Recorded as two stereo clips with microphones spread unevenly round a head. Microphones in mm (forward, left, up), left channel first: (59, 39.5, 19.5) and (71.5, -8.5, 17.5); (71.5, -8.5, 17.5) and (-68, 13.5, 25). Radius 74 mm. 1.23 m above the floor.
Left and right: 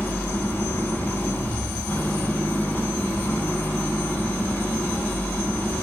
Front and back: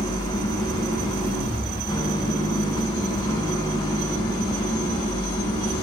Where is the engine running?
55° left, 6 m.